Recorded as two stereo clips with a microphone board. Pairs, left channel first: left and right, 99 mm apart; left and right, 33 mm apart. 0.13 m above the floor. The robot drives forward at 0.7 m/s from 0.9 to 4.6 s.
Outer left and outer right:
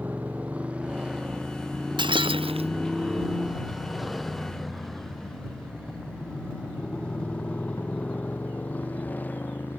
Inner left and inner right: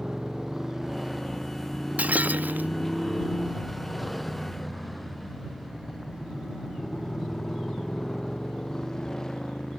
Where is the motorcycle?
15° right (ahead or behind); by 9.8 s 20° left (ahead or behind).